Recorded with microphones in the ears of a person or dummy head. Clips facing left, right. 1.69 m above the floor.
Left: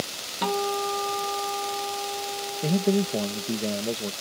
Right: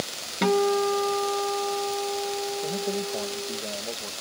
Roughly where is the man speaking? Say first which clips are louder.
Left 5 dB; left.